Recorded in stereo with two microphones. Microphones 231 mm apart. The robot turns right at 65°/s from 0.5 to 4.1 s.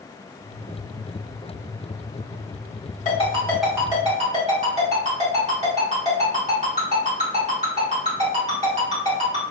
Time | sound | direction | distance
3.0 | a ringtone | 35° left (ahead or behind) | 1.7 m